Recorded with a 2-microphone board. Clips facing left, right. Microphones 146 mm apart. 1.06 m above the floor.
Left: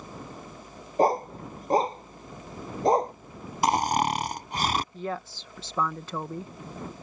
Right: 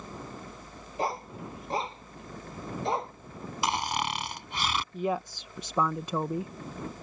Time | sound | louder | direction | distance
1.0 | a dog barking | left 9 dB | 45° left (ahead or behind) | ?
3.6 | snoring | left 7 dB | 45° left (ahead or behind) | ?
4.9 | a woman speaking | right 3 dB | 15° right (ahead or behind) | ?